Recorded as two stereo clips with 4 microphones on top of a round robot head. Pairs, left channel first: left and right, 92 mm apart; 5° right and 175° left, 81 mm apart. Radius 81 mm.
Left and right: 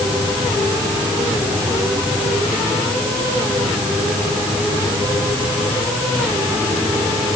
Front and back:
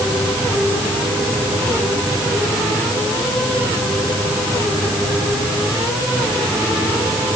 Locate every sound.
Only background noise.